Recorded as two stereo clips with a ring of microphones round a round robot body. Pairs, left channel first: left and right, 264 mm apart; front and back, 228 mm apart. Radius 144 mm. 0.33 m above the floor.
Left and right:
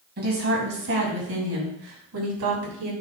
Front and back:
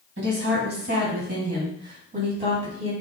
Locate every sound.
0.2 s a woman speaking: 140° right, 3 m; by 2.9 s 115° right, 3.5 m